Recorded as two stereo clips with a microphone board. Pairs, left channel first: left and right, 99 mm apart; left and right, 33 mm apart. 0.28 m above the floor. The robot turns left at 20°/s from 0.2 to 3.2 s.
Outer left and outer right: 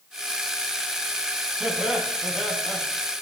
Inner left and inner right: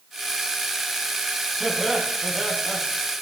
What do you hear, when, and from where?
1.6 s laughter: 10° right (ahead or behind), 2.5 m; by 2.8 s 10° left (ahead or behind), 2.5 m